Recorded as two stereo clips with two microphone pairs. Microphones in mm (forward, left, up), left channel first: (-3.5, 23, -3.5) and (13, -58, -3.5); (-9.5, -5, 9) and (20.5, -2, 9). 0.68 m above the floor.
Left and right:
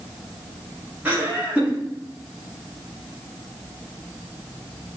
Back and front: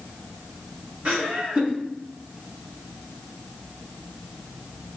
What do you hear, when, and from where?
1.1 s laughter: 15° right, 1.6 m